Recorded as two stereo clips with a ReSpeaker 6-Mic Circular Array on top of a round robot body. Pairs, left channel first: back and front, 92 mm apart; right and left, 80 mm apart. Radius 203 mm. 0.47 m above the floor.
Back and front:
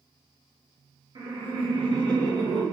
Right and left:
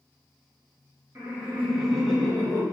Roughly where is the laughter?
Ahead left.